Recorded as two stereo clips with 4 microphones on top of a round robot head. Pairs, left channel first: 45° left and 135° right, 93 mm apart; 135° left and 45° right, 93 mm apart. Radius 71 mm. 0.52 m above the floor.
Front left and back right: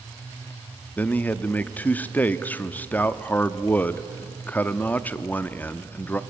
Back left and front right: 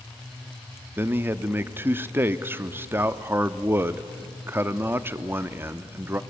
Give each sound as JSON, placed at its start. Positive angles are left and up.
{"t": 1.0, "sound": "a man speaking", "azimuth_deg": -5, "distance_m": 0.8}